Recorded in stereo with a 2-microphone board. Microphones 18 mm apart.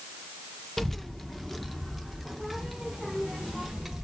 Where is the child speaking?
20° left (ahead or behind), 0.8 m; by 4.0 s 5° right (ahead or behind), 1.7 m.